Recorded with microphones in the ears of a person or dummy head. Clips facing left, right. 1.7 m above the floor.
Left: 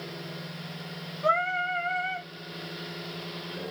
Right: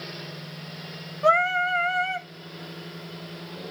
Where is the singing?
65° right (ahead or behind), 0.7 m.